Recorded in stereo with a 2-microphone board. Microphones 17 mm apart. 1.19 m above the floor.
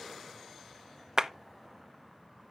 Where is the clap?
45° right (ahead or behind), 0.7 m.